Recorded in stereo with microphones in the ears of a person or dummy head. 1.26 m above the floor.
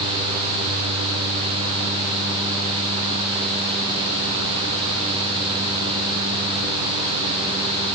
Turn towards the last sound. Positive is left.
No sound to turn to.